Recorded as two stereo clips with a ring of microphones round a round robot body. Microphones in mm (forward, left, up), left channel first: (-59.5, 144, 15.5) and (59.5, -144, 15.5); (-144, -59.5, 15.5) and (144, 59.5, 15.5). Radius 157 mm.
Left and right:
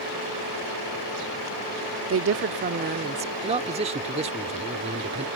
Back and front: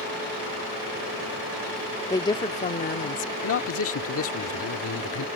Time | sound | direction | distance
2.1 | a woman speaking | 80° right | ?
3.4 | a man speaking | 130° right | ?